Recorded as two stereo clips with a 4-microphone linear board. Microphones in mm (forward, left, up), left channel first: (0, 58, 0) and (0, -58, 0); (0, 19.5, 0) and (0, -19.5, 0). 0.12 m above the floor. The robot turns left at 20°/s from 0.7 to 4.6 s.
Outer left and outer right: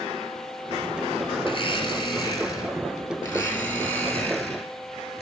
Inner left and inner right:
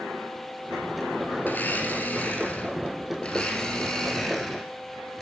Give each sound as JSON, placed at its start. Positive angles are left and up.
{"t": 1.4, "sound": "a blender", "azimuth_deg": 65, "distance_m": 1.8}